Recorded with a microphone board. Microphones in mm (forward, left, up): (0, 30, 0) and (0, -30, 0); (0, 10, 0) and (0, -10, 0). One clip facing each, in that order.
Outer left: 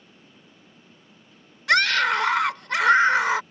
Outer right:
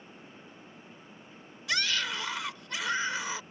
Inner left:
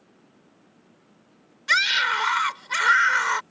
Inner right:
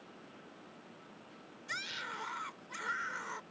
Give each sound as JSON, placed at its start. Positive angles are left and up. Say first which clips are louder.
{"t": 1.7, "sound": "a scream", "louder": "outer left 12 dB, inner left 20 dB", "side_deg": 75}